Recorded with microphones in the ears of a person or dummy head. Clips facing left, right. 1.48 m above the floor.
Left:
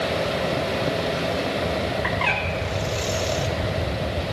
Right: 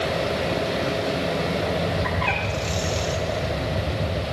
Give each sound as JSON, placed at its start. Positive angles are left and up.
{"t": 2.0, "sound": "a bird", "side_deg": 70, "distance_m": 3.5}